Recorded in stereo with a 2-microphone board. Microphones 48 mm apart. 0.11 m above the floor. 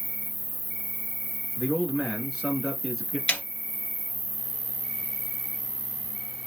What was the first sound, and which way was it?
An insect, 35° right (ahead or behind).